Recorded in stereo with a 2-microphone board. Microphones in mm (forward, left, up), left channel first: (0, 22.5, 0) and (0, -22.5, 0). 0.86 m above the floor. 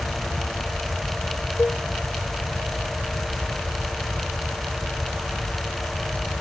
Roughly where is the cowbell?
Left.